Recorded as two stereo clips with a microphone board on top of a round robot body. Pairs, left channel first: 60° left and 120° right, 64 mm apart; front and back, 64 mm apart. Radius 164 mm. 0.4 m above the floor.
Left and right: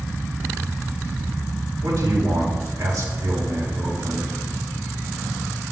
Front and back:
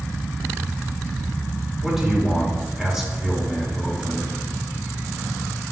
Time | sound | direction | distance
1.8 | a man speaking | 100° right | 3.5 m